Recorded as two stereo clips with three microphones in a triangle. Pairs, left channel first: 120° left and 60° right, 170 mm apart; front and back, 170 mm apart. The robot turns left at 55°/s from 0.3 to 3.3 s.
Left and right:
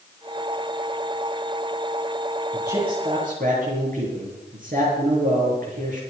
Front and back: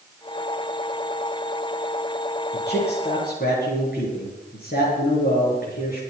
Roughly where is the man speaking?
Ahead.